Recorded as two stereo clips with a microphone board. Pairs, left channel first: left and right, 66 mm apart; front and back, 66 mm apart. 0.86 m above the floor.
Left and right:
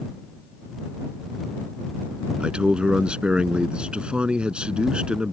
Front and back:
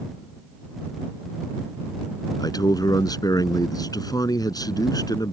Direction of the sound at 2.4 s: 15° right.